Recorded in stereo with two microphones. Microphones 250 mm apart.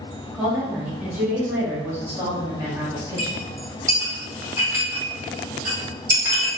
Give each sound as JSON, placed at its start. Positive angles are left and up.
{"t": 0.3, "sound": "a woman speaking", "side_deg": -5, "distance_m": 1.4}
{"t": 3.2, "sound": "a clink", "side_deg": -10, "distance_m": 1.3}